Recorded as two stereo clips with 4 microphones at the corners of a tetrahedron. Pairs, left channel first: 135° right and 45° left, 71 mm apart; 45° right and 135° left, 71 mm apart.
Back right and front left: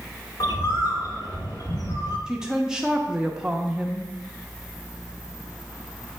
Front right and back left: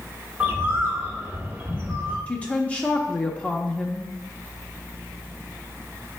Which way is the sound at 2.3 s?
20° right.